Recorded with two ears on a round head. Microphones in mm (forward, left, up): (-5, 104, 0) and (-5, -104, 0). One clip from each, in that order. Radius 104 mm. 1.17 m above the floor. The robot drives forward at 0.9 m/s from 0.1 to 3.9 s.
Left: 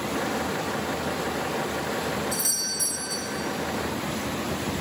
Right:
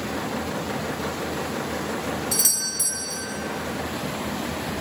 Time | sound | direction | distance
2.3 | a doorbell | 25° right (ahead or behind) | 0.6 m